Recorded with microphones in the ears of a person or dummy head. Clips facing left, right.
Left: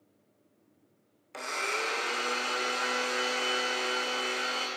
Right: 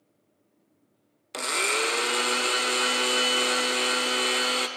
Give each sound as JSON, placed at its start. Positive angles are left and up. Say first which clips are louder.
{"t": 1.3, "sound": "a blender", "louder": "right 6 dB", "side_deg": -45, "distance_m": 0.6}